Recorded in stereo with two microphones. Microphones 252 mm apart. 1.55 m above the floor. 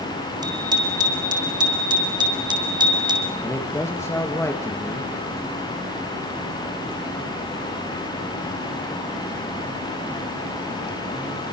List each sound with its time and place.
0.4 s a bicycle bell: 15° right (ahead or behind), 6 m
3.4 s a man speaking: 10° left (ahead or behind), 2.5 m